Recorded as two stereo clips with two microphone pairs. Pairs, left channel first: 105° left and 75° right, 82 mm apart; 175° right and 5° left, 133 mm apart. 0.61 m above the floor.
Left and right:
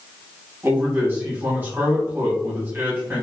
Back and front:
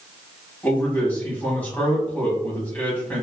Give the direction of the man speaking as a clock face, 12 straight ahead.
4 o'clock.